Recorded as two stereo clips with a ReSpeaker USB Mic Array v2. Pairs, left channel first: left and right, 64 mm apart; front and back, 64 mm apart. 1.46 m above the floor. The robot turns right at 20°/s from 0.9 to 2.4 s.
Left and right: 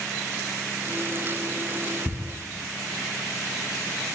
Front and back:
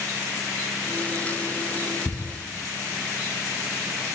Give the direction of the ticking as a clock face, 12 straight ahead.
1 o'clock.